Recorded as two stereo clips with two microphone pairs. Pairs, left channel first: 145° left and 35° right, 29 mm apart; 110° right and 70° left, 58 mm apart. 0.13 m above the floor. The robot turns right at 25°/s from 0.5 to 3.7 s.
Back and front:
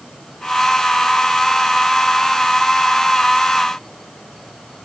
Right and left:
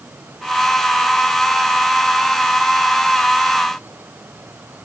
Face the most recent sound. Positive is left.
No sound to turn to.